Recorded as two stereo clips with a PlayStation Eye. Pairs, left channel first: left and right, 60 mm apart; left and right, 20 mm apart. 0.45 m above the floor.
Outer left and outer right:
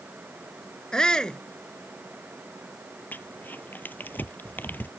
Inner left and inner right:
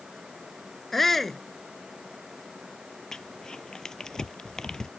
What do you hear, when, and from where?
0.9 s a shout: 15° left (ahead or behind)
3.1 s crumpling: 30° left (ahead or behind)